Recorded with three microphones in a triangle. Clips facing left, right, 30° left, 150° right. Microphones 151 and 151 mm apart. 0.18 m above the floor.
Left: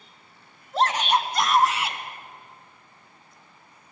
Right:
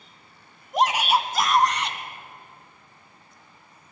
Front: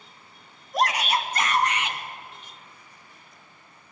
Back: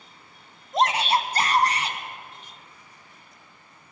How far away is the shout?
About 1.1 m.